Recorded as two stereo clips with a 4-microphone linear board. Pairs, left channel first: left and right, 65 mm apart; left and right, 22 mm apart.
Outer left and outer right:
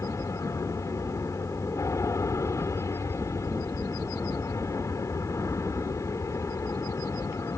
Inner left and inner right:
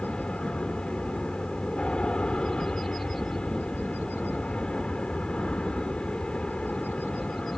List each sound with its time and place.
0.0 s an aircraft: 50° left (ahead or behind)